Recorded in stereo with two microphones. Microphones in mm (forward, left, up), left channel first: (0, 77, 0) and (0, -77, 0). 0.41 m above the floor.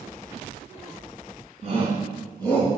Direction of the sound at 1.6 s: 50° right (ahead or behind).